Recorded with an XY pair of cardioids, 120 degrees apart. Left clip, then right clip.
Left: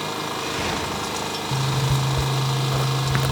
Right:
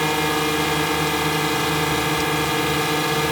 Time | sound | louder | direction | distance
0.0 | a drone | right 7 dB | 65° right | ?
1.5 | a zipper | right 5 dB | 65° left | ?